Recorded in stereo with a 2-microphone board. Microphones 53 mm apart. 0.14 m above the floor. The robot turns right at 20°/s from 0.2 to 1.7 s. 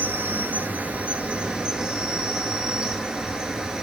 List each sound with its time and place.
0.0 s an insect: 50° right, 1.4 m; by 3.8 s 20° right, 1.4 m